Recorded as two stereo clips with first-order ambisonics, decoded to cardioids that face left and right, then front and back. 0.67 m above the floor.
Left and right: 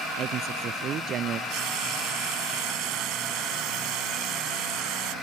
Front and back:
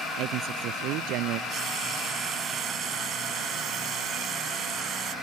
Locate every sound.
0.2 s a man speaking: 145° right
1.5 s frying: 120° right